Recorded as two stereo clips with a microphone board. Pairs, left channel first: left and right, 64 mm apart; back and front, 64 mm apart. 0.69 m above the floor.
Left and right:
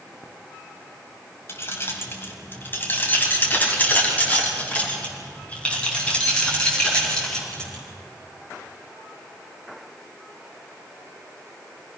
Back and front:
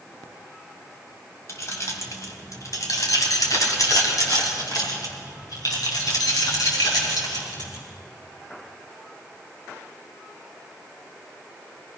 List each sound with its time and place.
1.5 s keys jangling: 140° left, 2.5 m; by 7.8 s 170° left, 5.5 m